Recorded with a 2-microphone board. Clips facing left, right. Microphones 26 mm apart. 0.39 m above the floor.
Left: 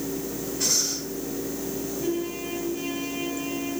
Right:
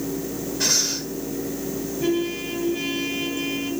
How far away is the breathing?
About 3 m.